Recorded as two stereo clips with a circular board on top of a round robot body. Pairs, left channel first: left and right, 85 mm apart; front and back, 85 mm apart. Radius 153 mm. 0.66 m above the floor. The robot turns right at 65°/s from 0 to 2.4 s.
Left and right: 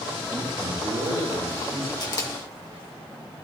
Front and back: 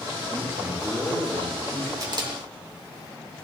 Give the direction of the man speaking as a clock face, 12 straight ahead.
4 o'clock.